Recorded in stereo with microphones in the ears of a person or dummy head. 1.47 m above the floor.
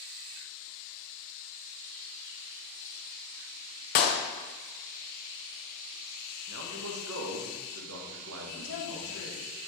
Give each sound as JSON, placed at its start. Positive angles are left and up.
{"t": 4.0, "sound": "a clap", "side_deg": 45, "distance_m": 0.5}
{"t": 6.5, "sound": "a man speaking", "side_deg": -75, "distance_m": 1.2}
{"t": 8.5, "sound": "a woman speaking", "side_deg": 80, "distance_m": 2.0}